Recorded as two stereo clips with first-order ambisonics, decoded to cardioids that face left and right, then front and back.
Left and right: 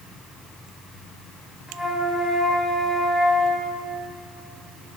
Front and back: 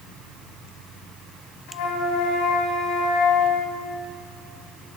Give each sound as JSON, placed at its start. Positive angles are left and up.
{"t": 1.7, "sound": "a flute", "azimuth_deg": 0, "distance_m": 1.0}